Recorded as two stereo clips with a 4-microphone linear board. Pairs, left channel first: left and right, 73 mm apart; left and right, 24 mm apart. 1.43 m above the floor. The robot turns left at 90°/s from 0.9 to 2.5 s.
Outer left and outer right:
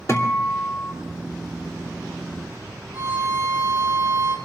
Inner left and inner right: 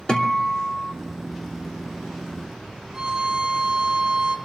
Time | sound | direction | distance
0.1 | a guitar | 40° left (ahead or behind) | 3 m
2.9 | a violin | 60° right (ahead or behind) | 6 m